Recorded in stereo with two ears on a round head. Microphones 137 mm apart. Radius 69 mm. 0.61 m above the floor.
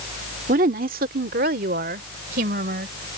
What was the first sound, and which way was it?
A woman speaking, 55° right (ahead or behind).